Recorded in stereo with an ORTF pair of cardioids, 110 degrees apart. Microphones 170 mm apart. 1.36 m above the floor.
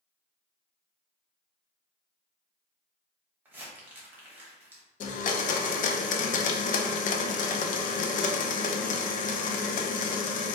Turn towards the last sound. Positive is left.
turn(degrees=45)